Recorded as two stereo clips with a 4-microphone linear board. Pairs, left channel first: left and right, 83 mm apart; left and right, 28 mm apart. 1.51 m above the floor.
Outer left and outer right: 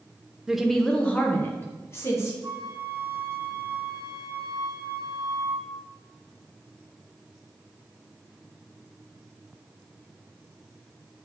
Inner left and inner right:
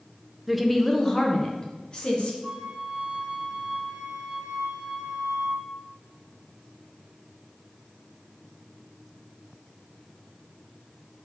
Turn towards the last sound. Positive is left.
turn(degrees=-55)  # may be behind; listen again after turning